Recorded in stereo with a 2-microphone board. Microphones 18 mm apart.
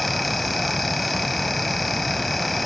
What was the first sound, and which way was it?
Only background noise.